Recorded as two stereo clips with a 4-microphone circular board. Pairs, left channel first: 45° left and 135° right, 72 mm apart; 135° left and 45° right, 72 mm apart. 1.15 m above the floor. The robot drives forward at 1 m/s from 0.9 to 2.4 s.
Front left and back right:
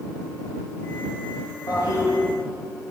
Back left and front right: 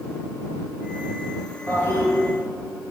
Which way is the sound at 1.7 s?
70° left.